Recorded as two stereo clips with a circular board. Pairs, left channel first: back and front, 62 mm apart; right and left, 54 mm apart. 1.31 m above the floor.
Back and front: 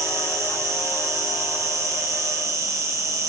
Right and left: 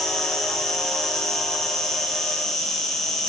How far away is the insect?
About 0.8 m.